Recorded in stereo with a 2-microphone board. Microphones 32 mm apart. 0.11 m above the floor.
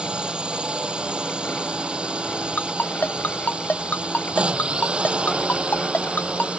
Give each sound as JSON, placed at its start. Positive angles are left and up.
{"t": 0.0, "sound": "a drone", "side_deg": -35}
{"t": 2.6, "sound": "a ringtone", "side_deg": 65}